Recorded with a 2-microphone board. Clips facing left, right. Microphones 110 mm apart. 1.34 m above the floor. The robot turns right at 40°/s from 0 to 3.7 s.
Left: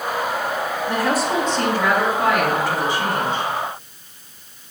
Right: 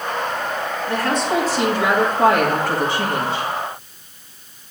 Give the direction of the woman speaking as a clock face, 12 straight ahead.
7 o'clock.